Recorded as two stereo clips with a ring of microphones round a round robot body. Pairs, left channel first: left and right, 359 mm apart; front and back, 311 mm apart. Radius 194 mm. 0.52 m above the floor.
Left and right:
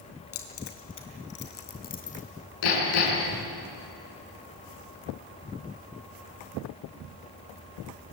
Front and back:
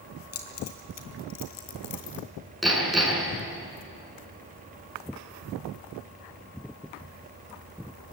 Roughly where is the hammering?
Left.